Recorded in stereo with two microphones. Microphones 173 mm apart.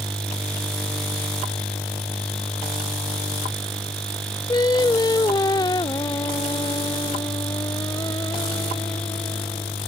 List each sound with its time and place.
4.5 s singing: 25° left (ahead or behind)